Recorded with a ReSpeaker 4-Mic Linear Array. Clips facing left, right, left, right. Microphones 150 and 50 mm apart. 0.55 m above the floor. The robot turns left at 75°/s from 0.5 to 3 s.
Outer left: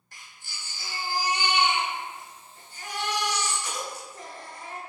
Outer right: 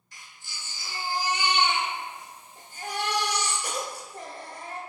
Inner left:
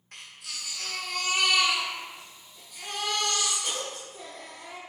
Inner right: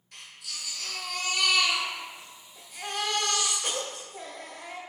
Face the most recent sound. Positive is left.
turn(degrees=-80)